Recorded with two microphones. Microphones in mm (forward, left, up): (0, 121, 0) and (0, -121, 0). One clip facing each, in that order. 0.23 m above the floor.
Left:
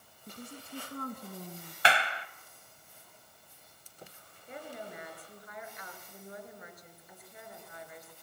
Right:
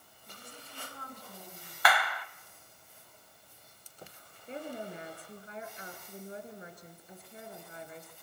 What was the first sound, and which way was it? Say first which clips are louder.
A woman speaking: left 8 dB; 50° left (ahead or behind).